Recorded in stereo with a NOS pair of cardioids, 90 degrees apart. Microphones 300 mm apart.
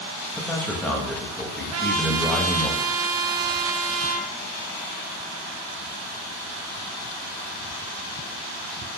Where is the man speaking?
5° left, 1.0 m.